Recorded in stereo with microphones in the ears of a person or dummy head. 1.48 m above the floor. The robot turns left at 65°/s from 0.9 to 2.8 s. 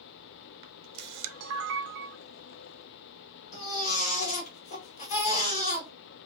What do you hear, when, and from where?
0.6 s a camera shutter: 55° right, 0.7 m; by 2.2 s 135° right, 0.7 m
3.5 s a baby crying: 35° left (ahead or behind), 1.6 m